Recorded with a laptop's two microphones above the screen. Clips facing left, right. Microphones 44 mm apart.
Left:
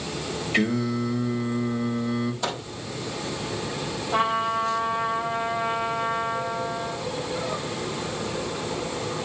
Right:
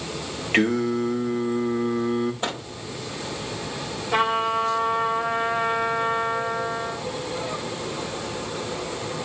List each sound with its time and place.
0.5 s singing: 50° right (ahead or behind), 2.5 m
2.4 s a microwave: 35° right (ahead or behind), 4 m
4.1 s a trumpet: 85° right, 2.5 m